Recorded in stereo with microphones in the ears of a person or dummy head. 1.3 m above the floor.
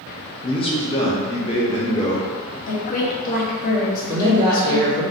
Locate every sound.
0.4 s a man speaking: 20° left (ahead or behind), 0.5 m; by 2.3 s 30° left (ahead or behind), 1.4 m
2.7 s a woman speaking: 40° left (ahead or behind), 1.0 m
4.1 s a woman speaking: 10° left (ahead or behind), 1.8 m